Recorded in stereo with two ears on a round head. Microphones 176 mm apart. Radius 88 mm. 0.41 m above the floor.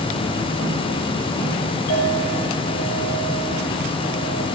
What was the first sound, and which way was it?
A clink, 45° left (ahead or behind).